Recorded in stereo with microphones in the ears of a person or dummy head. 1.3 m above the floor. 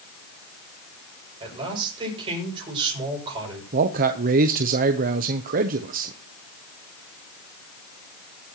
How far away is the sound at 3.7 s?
About 0.8 m.